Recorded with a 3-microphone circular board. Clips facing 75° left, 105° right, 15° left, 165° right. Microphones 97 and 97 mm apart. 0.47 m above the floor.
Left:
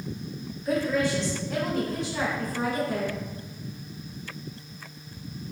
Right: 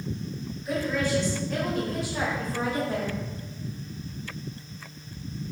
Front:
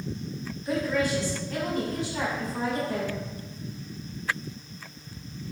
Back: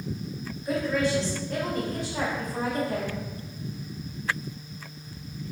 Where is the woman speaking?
130° left, 1.7 m; by 3.1 s 155° right, 1.9 m.